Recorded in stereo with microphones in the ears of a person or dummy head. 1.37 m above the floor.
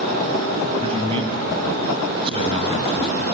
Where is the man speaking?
30° right (ahead or behind), 7.5 m.